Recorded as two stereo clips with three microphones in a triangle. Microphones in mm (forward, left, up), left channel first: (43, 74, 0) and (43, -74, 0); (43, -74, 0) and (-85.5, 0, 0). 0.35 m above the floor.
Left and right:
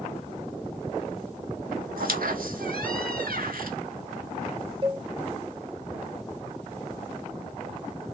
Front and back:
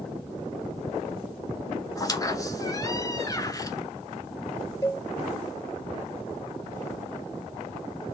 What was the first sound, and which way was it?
A squeak, 95° right.